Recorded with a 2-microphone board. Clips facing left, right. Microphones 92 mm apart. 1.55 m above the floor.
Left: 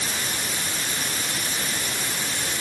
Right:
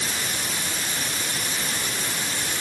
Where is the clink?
I don't hear a clink.